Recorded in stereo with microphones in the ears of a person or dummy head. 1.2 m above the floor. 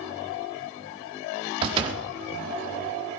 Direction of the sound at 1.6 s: 30° right (ahead or behind).